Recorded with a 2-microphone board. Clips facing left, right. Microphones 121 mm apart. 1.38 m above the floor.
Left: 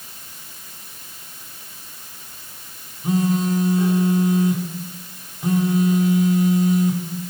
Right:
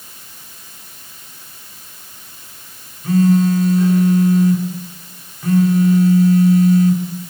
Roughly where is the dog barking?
No dog barking in this recording.